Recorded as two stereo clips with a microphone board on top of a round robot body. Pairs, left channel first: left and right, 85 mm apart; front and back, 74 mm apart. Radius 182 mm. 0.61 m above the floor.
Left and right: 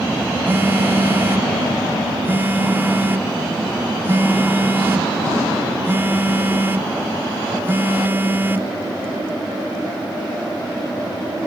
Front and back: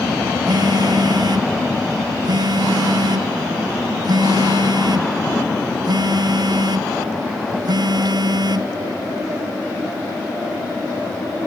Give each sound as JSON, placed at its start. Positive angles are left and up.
{"t": 0.5, "sound": "a phone buzzing", "azimuth_deg": -155}